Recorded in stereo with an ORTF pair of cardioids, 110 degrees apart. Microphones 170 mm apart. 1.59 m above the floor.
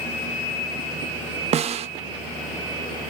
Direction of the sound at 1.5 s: 40° right.